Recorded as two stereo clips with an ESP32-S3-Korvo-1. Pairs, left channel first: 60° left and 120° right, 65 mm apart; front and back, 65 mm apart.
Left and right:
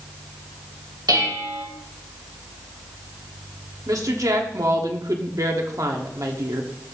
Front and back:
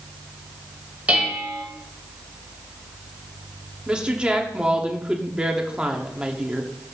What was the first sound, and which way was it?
Dishes clattering, 115° right.